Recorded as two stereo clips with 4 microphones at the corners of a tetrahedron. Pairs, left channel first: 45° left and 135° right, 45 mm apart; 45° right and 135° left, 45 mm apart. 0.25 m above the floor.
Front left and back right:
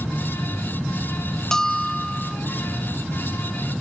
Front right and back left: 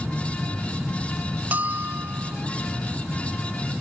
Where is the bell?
115° left, 0.7 m.